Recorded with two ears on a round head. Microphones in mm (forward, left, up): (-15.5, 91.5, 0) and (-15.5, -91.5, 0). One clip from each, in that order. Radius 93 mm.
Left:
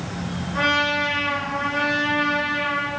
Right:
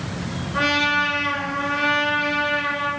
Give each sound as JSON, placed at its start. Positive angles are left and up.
{"t": 0.5, "sound": "a trumpet", "side_deg": -15, "distance_m": 10.0}